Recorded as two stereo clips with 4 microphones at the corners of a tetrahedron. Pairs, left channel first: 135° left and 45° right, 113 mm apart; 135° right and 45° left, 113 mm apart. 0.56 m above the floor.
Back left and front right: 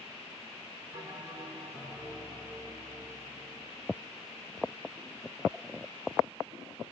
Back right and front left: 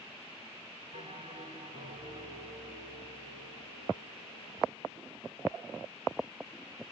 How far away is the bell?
About 1.9 m.